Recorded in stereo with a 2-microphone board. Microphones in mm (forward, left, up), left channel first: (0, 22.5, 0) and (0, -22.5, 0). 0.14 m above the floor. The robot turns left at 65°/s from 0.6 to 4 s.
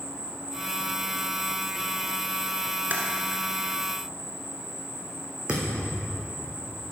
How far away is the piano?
No piano in this recording.